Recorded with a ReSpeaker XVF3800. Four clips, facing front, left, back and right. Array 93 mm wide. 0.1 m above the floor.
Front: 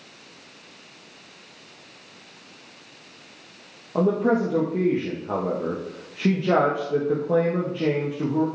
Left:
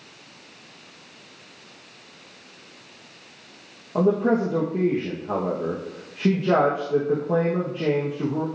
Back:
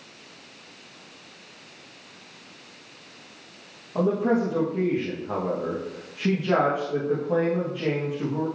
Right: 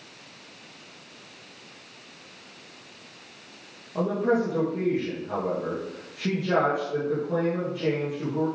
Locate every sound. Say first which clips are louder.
4.0 s a man speaking: left 4 dB, front 2 dB; 40° left, 3.5 m